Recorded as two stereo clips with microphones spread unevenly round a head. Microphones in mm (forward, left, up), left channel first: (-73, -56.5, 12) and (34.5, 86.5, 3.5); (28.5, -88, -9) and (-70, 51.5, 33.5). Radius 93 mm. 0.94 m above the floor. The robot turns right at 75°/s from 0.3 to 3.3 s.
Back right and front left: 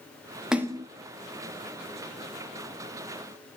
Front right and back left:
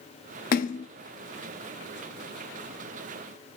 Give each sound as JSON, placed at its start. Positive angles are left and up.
{"t": 0.5, "sound": "a splash", "azimuth_deg": -35, "distance_m": 0.6}